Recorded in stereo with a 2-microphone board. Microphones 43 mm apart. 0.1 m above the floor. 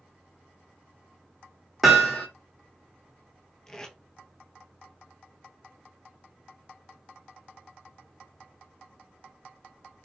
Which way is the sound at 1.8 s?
5° right (ahead or behind).